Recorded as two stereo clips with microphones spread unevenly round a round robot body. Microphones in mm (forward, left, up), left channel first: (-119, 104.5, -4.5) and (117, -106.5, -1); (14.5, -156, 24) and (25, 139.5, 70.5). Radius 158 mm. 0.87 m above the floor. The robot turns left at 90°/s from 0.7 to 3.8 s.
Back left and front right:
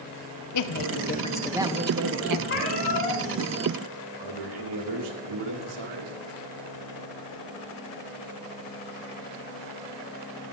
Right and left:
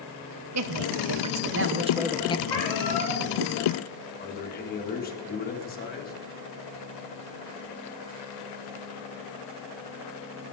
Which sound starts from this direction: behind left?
A woman speaking, at 0.5 s.